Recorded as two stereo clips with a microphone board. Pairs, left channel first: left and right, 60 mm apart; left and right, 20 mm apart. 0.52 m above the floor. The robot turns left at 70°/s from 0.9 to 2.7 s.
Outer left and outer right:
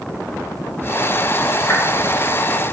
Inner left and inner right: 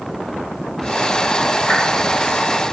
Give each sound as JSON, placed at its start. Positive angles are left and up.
{"t": 1.7, "sound": "a whoosh", "side_deg": 40, "distance_m": 2.5}